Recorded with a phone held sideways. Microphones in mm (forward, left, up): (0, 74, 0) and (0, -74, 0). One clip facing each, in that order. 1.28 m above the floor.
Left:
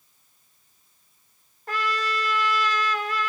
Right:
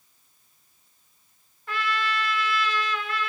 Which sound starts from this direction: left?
A trumpet, at 1.7 s.